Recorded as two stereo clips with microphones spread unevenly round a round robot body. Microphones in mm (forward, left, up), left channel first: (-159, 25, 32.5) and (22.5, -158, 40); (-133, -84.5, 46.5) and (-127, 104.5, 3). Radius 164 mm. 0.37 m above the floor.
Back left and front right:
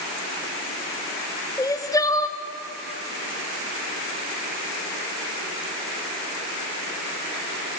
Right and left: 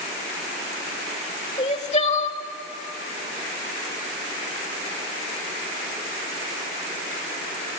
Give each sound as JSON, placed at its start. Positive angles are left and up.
{"t": 1.6, "sound": "crying", "azimuth_deg": -145, "distance_m": 1.3}